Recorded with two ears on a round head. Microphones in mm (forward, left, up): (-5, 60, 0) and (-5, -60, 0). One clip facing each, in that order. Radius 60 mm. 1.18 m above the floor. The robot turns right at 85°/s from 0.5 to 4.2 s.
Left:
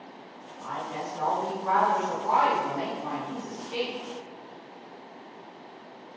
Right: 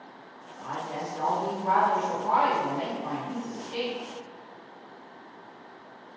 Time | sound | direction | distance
0.6 | a woman speaking | 135° right | 1.1 m